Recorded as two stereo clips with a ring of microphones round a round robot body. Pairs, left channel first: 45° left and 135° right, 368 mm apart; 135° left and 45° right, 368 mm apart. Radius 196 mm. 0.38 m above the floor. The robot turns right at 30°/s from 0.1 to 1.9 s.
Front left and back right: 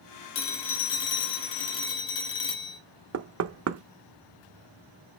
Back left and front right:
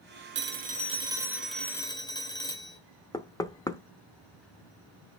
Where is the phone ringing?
10° left, 1.4 m; by 2.8 s 55° left, 1.4 m.